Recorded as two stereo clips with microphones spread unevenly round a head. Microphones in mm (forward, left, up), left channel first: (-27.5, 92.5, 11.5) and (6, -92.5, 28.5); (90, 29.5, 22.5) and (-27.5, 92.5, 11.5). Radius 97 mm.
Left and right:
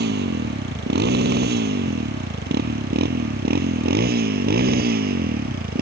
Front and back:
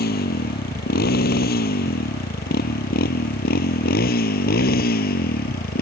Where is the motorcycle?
40° right; by 5.8 s 35° right.